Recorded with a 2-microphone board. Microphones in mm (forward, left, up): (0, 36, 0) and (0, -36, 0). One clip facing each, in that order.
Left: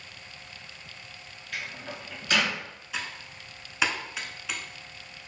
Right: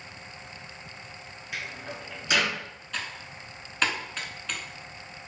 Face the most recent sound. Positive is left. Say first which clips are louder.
# even
turn(degrees=10)  # may be behind; listen again after turning